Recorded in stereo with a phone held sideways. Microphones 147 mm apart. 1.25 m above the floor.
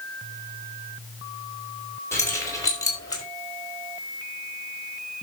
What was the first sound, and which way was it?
Keys jangling, 20° left (ahead or behind).